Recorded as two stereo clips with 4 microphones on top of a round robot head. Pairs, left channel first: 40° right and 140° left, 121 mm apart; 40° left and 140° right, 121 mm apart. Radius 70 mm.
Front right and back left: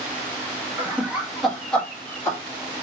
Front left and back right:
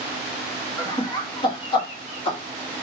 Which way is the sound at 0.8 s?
80° left.